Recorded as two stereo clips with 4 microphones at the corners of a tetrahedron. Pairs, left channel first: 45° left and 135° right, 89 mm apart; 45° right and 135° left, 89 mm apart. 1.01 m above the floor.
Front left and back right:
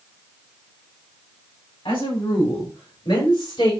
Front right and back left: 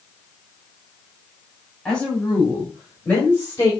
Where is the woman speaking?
35° left, 5.5 m; by 3.7 s 20° left, 6 m.